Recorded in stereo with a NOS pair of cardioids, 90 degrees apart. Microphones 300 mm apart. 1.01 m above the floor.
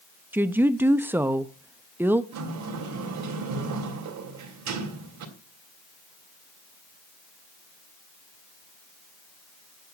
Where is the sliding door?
65° right, 3.5 m.